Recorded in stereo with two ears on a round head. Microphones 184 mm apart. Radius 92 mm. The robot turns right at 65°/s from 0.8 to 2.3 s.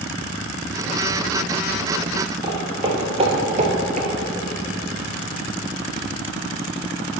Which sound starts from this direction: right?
Footsteps, at 2.4 s.